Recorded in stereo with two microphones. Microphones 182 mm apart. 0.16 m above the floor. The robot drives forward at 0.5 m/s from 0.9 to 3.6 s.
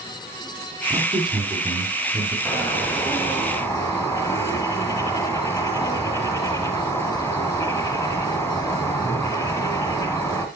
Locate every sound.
0.9 s a man speaking: 25° right (ahead or behind), 1.8 m
2.5 s a bird: 10° left (ahead or behind), 1.7 m; by 10.5 s 15° left (ahead or behind), 1.3 m